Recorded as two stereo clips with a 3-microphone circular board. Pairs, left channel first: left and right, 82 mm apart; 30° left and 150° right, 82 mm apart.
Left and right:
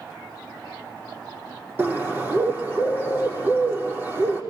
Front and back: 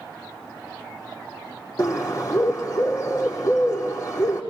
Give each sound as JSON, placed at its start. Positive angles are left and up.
{"t": 1.8, "sound": "a bird", "azimuth_deg": -25, "distance_m": 4.0}